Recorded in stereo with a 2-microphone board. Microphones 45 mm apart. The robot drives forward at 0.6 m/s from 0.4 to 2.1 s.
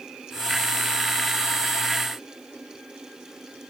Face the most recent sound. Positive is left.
No sound to turn to.